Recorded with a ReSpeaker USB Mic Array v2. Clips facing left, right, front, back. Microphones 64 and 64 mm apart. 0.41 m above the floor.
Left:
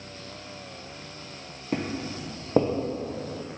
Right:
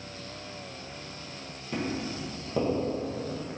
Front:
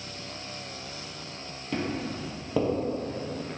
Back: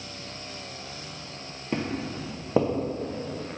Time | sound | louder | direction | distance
1.7 | footsteps | left 2 dB, back 1 dB | 120° left | 0.6 m